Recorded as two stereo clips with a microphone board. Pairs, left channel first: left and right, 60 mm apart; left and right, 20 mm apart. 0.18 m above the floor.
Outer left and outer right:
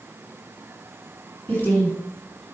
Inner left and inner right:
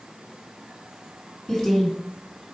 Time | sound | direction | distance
1.5 | a woman speaking | 25° left (ahead or behind) | 1.8 m